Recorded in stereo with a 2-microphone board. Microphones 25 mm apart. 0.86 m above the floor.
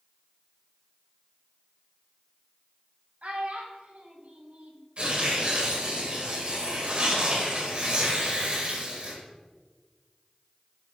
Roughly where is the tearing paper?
Right.